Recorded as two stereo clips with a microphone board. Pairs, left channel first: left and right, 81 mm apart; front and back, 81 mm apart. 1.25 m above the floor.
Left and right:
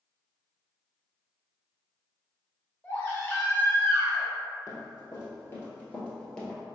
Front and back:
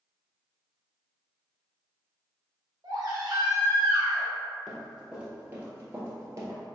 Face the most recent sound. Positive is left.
turn(degrees=165)